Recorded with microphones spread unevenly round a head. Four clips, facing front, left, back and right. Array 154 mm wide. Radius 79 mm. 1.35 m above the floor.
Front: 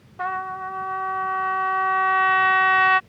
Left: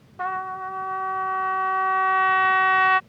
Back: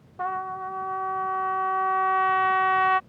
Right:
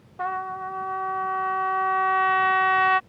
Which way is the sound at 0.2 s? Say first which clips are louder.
Left 1 dB, front 2 dB; 160° right.